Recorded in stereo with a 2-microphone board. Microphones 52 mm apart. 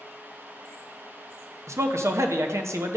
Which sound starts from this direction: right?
A man speaking, at 1.7 s.